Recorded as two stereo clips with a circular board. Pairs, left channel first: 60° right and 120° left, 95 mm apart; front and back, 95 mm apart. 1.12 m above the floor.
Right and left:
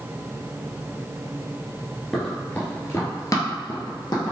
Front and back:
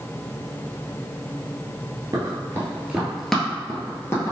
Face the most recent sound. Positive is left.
turn(degrees=-50)